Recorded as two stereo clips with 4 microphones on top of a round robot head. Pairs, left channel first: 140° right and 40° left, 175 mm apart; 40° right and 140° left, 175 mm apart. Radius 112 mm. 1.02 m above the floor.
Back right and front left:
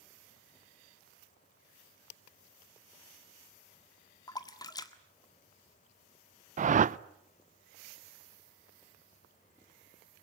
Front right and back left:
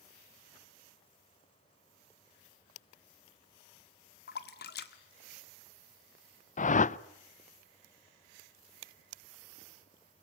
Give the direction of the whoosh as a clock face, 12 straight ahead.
12 o'clock.